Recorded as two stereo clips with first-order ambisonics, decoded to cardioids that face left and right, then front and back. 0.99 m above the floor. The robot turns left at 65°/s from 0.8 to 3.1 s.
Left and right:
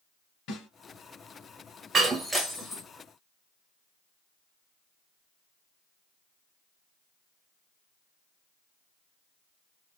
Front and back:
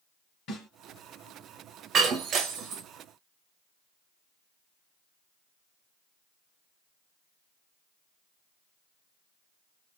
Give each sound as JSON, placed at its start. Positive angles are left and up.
{"t": 0.5, "sound": "a snare drum", "azimuth_deg": 45, "distance_m": 2.0}
{"t": 1.9, "sound": "breaking glass", "azimuth_deg": -140, "distance_m": 0.9}